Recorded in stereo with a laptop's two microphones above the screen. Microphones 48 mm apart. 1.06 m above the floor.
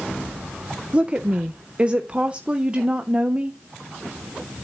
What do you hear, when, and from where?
0.9 s a woman speaking: 25° right (ahead or behind), 0.5 m